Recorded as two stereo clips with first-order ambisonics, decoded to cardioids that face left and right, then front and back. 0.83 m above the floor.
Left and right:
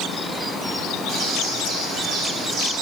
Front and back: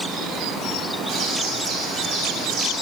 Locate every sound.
1.1 s a bird: 145° right, 3 m